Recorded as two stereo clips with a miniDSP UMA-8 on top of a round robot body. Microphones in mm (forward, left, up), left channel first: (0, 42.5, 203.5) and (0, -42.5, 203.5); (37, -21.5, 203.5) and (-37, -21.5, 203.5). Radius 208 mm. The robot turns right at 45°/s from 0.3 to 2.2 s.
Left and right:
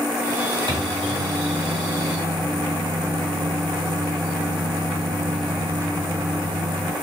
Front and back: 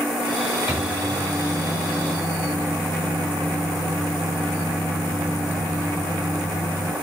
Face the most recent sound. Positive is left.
turn(degrees=-45)